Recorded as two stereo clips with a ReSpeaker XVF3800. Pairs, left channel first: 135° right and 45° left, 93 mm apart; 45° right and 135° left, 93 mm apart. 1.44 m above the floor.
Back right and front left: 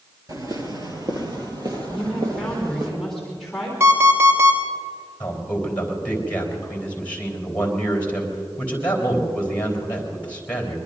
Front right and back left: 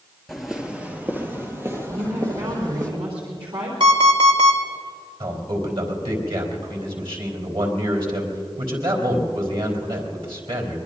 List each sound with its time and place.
0.3 s footsteps: 45° left, 1.8 m; by 2.9 s 85° left, 4 m
1.9 s a woman speaking: 140° left, 3.5 m
3.8 s an alarm clock: 105° left, 3 m
5.2 s a man speaking: 155° left, 4 m